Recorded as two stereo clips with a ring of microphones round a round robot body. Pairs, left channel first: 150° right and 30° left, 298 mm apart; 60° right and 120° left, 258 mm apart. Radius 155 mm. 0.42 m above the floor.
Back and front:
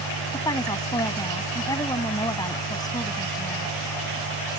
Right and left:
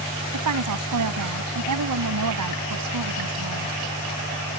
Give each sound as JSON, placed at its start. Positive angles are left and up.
{"t": 0.3, "sound": "a woman speaking", "azimuth_deg": 130}